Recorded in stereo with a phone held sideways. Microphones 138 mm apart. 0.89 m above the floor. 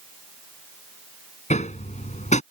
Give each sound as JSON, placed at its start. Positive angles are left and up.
{"t": 1.5, "sound": "hammering", "side_deg": 60}